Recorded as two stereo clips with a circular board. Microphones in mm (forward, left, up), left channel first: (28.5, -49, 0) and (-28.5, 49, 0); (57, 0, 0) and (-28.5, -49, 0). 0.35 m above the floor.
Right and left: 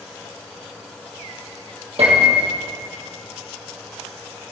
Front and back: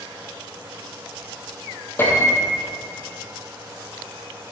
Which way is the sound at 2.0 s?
95° left.